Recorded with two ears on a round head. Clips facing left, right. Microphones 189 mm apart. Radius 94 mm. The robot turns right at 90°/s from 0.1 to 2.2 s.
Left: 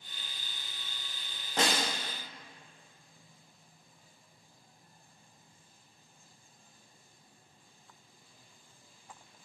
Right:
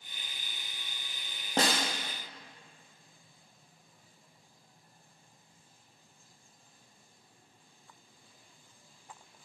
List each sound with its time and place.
1.6 s a snare drum: 30° right (ahead or behind), 0.7 m; by 1.9 s 50° right (ahead or behind), 0.7 m